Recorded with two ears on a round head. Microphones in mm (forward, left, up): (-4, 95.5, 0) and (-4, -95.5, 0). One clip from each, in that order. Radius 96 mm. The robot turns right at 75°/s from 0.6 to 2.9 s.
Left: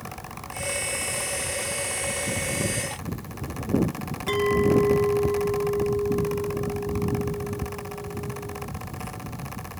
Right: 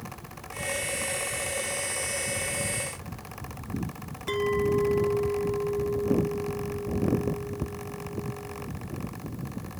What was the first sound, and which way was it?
A clink, 5° left (ahead or behind).